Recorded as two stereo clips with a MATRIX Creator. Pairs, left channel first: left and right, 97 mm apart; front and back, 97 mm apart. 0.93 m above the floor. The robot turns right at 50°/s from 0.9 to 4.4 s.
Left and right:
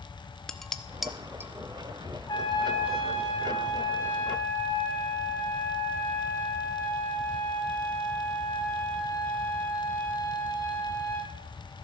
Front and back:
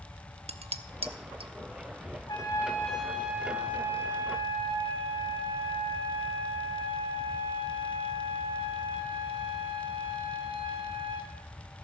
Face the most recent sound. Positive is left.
turn(degrees=155)